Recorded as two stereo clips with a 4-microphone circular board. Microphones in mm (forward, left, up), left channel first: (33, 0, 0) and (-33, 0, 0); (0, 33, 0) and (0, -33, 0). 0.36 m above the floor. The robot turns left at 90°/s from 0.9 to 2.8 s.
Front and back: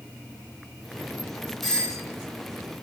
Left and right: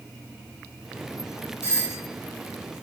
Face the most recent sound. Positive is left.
turn(degrees=-25)